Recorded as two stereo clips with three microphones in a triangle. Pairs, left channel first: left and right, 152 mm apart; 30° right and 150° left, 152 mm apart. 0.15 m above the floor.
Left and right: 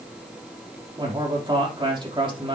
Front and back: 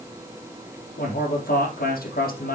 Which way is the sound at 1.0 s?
35° right.